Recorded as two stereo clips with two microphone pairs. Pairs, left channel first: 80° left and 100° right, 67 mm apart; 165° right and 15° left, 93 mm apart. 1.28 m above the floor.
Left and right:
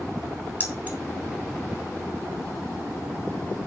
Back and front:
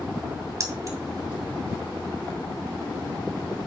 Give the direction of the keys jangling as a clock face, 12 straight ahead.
1 o'clock.